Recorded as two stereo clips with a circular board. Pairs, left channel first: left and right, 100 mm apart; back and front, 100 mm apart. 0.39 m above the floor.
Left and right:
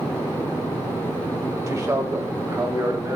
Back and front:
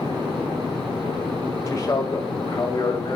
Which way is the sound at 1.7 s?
135° right.